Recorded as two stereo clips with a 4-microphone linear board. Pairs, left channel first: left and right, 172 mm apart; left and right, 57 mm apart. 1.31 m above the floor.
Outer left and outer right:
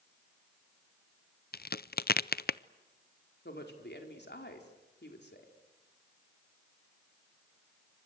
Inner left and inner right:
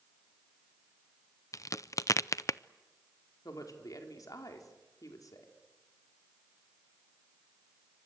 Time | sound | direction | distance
1.5 | a crack | 60° left (ahead or behind) | 0.5 m
3.5 | a woman speaking | 70° left (ahead or behind) | 4 m